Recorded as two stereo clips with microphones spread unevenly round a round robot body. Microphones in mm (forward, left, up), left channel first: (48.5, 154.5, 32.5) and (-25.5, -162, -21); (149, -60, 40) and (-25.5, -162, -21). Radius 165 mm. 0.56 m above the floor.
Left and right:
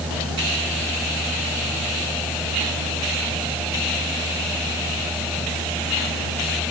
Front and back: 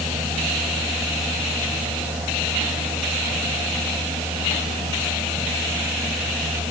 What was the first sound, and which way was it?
Only background noise.